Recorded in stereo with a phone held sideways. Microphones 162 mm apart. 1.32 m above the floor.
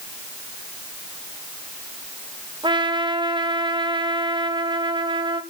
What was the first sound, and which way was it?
A trumpet, 30° right (ahead or behind).